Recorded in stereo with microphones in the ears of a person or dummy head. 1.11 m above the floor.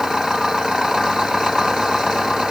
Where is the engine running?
Centre (ahead or behind).